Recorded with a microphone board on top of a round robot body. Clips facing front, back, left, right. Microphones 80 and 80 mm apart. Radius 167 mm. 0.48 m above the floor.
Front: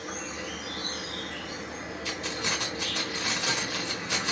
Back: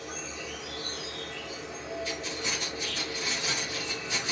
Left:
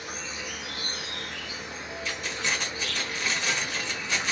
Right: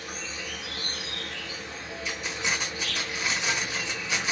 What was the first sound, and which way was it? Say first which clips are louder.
An insect: front 3 dB, left 1 dB; 15° left.